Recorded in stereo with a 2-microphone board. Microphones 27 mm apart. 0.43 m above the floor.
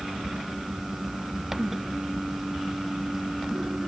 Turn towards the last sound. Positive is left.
No sound to turn to.